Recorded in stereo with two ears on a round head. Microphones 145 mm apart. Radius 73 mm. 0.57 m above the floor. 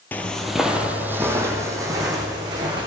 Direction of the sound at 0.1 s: 10° left (ahead or behind).